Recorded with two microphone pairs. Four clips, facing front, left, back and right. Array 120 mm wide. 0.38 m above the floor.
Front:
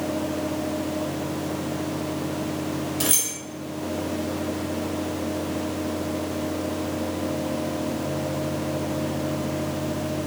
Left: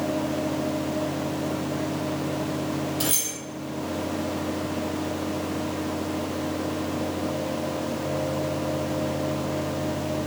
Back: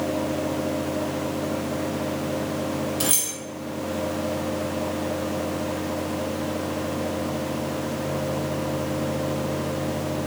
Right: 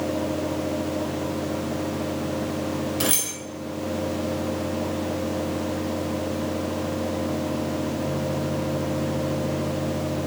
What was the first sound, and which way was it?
Keys jangling, 85° right.